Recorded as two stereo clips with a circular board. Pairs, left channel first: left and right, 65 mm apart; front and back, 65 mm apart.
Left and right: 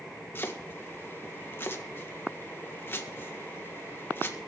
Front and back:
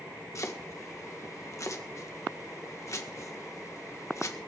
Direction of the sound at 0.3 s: 35° left.